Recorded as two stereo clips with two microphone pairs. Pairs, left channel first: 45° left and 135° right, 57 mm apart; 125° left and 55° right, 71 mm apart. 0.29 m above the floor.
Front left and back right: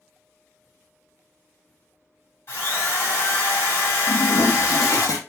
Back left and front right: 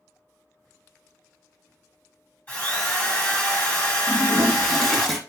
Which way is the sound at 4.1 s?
45° left.